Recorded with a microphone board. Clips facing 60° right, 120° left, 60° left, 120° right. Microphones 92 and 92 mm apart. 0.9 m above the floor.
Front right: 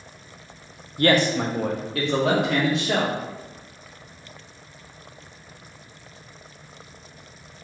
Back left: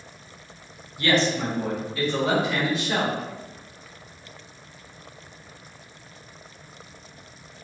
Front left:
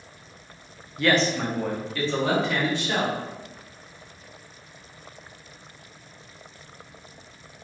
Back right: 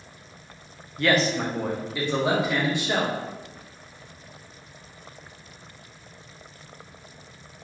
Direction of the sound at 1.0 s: 30° right.